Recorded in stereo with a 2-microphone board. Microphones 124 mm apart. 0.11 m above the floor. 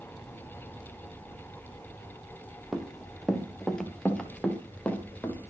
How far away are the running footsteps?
About 3 m.